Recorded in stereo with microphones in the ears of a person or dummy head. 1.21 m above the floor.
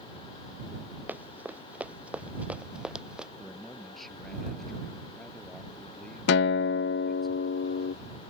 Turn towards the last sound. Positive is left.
turn(degrees=65)  # may be behind; listen again after turning